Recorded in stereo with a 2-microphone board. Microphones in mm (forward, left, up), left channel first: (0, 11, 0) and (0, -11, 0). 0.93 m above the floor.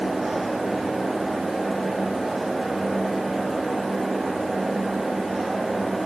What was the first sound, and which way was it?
Only background noise.